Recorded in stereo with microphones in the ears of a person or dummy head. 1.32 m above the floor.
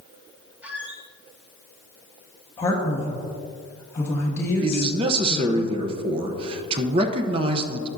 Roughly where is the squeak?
Centre.